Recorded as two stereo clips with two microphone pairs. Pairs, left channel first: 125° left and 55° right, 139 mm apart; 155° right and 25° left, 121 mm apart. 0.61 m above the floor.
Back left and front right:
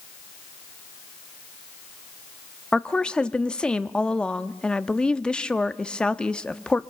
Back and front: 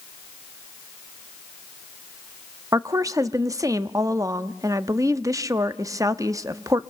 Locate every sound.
2.7 s a woman speaking: 45° left, 0.6 m